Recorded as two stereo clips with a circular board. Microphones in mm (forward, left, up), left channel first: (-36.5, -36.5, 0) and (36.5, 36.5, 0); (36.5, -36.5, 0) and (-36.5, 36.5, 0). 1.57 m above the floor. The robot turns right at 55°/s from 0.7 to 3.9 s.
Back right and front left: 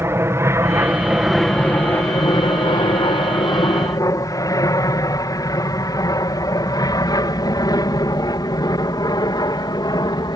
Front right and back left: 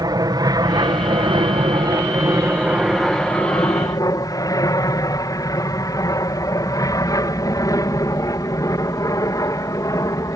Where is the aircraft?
100° left; by 10.4 s 95° right.